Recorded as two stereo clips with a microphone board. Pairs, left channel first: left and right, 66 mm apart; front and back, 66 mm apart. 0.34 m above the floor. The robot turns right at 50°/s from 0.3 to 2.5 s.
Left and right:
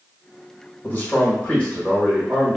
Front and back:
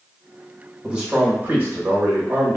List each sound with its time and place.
0.8 s a man speaking: 110° left, 1.1 m; by 2.6 s 165° right, 1.1 m